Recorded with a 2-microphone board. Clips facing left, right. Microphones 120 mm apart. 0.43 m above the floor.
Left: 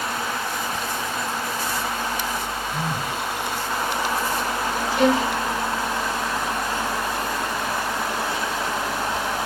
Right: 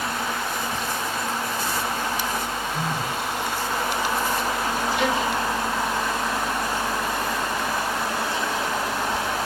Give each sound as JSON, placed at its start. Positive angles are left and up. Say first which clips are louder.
{"t": 2.7, "sound": "a phone buzzing", "louder": "left 1 dB", "side_deg": 65, "distance_m": 2.5}
{"t": 5.0, "sound": "a violin", "louder": "left 7 dB", "side_deg": 45, "distance_m": 1.0}